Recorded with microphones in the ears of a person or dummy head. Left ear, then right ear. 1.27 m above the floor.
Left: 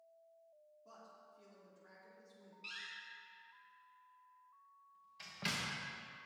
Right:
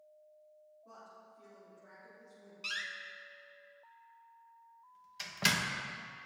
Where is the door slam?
20° right (ahead or behind), 0.9 m.